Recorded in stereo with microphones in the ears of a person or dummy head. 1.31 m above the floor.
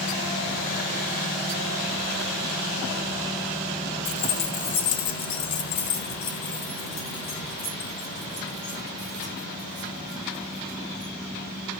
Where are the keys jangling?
50° left (ahead or behind), 0.8 m; by 11.1 s 25° left (ahead or behind), 5 m.